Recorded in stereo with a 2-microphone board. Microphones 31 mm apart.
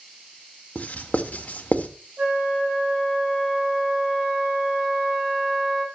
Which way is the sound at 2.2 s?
45° right (ahead or behind).